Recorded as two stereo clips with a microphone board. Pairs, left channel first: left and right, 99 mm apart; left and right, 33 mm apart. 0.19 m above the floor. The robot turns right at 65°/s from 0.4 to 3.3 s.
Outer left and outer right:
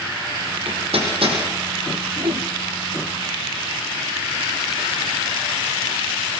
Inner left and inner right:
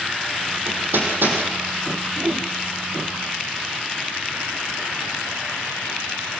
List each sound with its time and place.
0.7 s hammering: 70° right (ahead or behind), 6 m; by 1.4 s 60° right (ahead or behind), 6 m
2.2 s a whoosh: 75° right (ahead or behind), 1.3 m